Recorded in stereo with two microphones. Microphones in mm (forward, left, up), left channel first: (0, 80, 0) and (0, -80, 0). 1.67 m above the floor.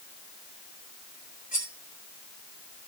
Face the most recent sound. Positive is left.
turn(degrees=60)  # may be behind; listen again after turning